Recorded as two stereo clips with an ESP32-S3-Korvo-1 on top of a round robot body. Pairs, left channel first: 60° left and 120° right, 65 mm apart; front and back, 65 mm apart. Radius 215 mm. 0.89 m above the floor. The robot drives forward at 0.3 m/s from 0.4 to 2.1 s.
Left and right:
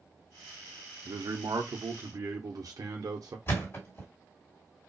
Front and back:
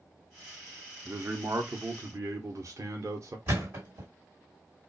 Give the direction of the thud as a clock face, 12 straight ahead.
8 o'clock.